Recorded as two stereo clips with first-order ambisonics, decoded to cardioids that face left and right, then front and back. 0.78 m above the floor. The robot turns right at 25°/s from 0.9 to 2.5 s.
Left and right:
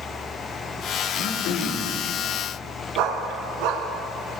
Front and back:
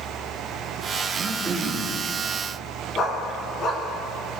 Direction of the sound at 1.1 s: 100° left.